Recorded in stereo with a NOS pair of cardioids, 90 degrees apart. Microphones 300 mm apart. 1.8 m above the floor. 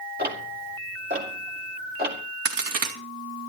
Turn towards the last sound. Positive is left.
turn(degrees=-50)